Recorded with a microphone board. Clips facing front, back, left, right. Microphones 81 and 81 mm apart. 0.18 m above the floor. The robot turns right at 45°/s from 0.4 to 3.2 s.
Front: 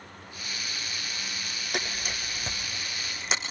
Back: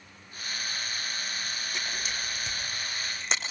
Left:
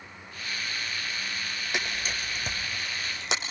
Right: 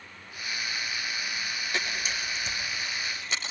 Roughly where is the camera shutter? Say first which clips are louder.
Front 4 dB, left 1 dB; ahead.